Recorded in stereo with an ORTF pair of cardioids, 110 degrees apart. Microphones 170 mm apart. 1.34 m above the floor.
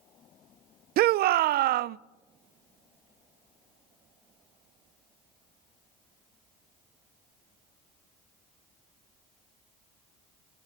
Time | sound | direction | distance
1.0 | a shout | 65° right | 0.6 m